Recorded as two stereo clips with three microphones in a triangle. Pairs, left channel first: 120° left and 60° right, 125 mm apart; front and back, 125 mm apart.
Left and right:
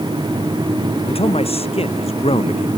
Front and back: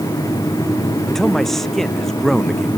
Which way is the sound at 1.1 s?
90° left.